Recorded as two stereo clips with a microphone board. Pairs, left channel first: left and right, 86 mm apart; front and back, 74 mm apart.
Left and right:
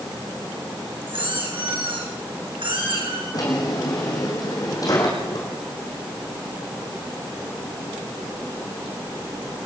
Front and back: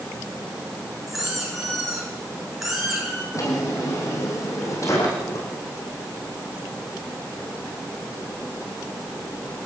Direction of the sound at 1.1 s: 95° right.